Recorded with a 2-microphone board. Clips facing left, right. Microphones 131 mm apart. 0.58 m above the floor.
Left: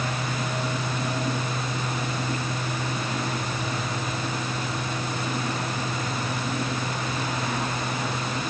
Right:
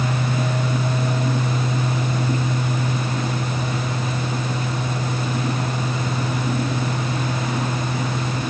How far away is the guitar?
I don't hear a guitar.